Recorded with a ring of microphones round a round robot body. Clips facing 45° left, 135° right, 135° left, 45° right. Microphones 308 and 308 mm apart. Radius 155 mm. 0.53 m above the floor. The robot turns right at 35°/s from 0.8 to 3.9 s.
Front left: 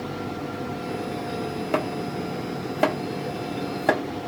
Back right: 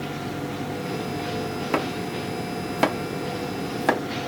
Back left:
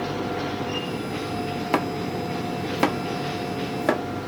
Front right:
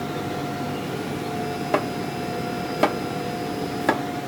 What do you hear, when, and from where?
1.7 s chopping: 165° left, 1.0 m; by 4.0 s 120° right, 1.0 m